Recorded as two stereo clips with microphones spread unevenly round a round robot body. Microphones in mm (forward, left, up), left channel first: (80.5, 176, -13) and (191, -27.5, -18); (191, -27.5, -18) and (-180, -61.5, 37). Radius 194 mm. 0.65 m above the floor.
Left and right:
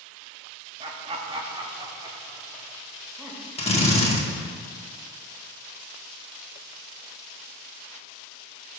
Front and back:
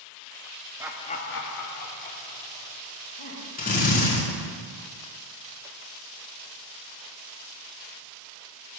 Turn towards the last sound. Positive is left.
turn(degrees=60)